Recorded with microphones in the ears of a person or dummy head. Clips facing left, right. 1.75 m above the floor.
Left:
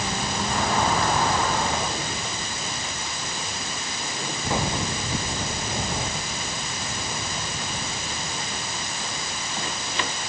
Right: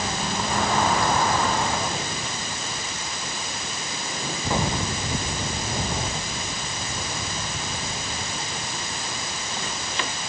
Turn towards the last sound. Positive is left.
No sound to turn to.